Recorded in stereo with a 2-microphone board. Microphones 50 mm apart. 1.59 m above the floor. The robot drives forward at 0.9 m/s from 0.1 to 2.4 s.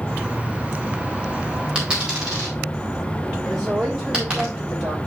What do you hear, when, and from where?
1.8 s a dropped coin: 15° right (ahead or behind), 4.5 m
3.5 s a woman speaking: 10° right (ahead or behind), 5.5 m